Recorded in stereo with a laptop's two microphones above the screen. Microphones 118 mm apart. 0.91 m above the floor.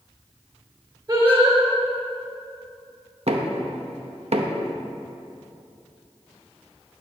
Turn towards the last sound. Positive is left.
turn(degrees=-60)  # may be behind; listen again after turning